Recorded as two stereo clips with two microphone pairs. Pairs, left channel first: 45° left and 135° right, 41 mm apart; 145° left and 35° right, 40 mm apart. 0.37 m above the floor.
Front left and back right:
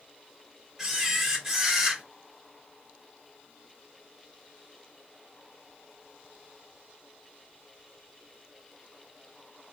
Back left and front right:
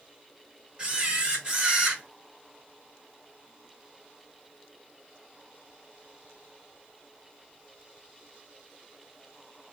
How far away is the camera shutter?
About 1.2 m.